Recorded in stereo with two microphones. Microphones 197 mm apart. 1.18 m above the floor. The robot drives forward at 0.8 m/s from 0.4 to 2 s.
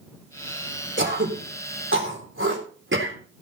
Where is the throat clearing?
75° right (ahead or behind), 4 m; by 3.2 s 85° right, 4 m.